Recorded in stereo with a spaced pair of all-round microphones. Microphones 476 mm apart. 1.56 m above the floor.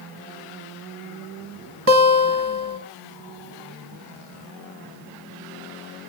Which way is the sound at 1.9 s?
40° right (ahead or behind).